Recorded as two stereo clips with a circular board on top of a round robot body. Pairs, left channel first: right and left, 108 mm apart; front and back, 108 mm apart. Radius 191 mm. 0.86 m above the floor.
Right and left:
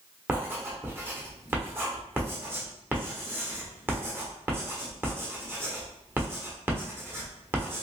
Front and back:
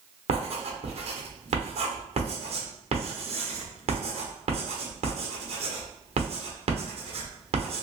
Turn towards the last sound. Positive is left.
turn(degrees=160)